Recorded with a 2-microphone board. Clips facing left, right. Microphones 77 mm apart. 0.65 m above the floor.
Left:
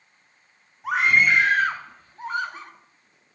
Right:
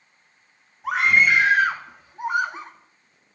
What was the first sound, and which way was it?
A scream, centre (ahead or behind).